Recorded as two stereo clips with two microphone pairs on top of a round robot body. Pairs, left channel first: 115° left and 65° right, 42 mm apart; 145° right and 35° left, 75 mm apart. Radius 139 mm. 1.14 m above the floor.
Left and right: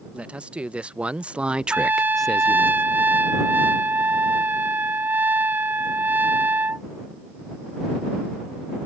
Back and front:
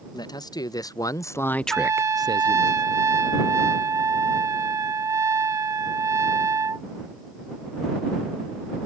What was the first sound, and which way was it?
A man speaking, 125° right.